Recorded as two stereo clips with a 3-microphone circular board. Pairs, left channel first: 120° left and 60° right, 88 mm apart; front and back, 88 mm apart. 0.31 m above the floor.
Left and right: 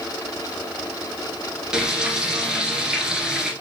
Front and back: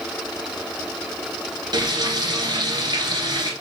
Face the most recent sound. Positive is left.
turn(degrees=-140)